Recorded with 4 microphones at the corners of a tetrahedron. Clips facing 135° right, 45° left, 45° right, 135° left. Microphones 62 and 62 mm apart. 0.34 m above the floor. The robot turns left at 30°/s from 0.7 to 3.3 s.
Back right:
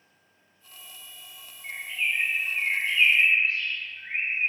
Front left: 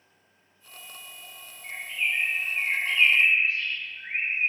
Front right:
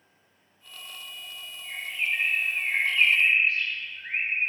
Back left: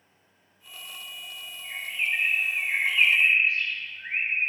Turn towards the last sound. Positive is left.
turn(degrees=95)